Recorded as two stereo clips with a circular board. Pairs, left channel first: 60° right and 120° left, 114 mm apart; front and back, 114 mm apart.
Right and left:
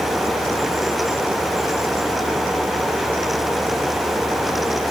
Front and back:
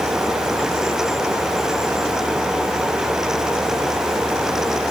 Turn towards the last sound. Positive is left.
No sound to turn to.